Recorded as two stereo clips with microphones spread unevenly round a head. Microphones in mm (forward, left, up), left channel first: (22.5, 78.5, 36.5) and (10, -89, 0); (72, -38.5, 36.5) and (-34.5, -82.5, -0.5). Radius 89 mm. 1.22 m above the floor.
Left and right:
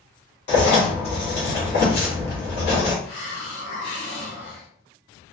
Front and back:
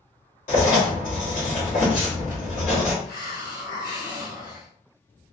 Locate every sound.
0.5 s writing: 65° left, 1.2 m
3.0 s a hiss: 55° left, 0.9 m